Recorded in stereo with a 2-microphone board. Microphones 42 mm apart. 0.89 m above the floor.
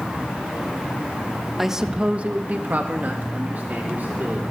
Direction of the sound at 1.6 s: 5° right (ahead or behind).